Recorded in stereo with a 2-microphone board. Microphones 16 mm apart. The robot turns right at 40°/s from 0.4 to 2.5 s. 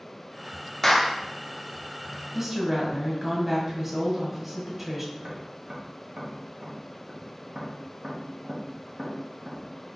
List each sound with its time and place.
0.8 s a clap: 20° left (ahead or behind), 0.5 m; by 1.2 s 5° left (ahead or behind), 0.5 m
2.3 s a woman speaking: 15° right (ahead or behind), 1.5 m; by 5.0 s 10° right (ahead or behind), 1.5 m
5.1 s tapping: 65° right (ahead or behind), 1.0 m